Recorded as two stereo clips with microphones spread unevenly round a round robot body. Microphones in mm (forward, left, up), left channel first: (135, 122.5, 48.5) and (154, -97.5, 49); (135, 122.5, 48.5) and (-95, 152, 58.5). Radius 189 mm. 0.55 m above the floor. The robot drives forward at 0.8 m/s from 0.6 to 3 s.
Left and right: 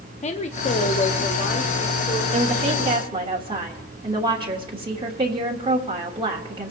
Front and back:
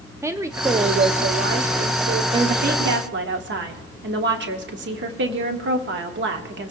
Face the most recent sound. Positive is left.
turn(degrees=-150)